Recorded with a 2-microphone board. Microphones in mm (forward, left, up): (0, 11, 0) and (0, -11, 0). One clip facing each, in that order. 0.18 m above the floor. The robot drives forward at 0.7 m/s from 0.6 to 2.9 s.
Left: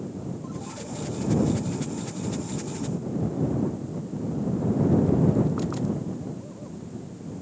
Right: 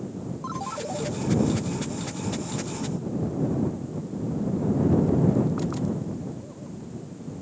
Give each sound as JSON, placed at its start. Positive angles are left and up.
{"t": 0.4, "sound": "a ringtone", "side_deg": -60}